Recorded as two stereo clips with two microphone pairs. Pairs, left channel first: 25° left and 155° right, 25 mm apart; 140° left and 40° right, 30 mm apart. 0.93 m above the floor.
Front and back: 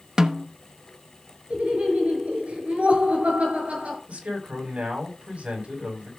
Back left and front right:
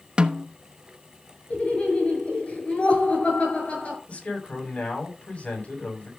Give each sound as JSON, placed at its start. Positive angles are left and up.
{"t": 0.2, "sound": "a snare drum", "azimuth_deg": -90, "distance_m": 1.0}
{"t": 1.5, "sound": "laughter", "azimuth_deg": -175, "distance_m": 7.0}
{"t": 4.1, "sound": "a man speaking", "azimuth_deg": 180, "distance_m": 6.5}